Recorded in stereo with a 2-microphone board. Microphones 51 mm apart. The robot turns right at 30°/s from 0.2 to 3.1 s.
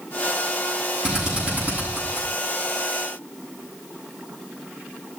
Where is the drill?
10° right (ahead or behind), 8.5 m; by 2.3 s 45° right (ahead or behind), 8.5 m.